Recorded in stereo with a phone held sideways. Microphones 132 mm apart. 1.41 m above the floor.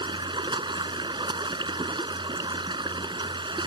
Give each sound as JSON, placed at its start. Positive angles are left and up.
{"t": 0.0, "sound": "running water", "side_deg": -35}